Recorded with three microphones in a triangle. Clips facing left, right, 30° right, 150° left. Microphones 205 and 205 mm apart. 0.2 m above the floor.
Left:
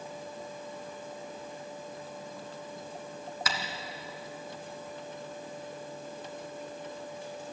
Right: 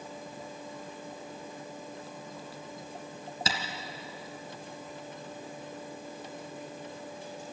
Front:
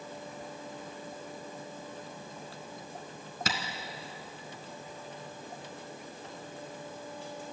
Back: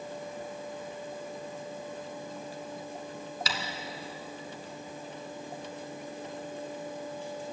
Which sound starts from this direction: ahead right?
Tapping, at 3.5 s.